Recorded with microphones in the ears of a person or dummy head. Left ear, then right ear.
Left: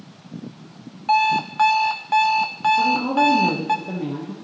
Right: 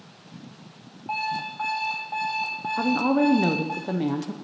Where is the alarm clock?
60° left (ahead or behind), 0.7 m.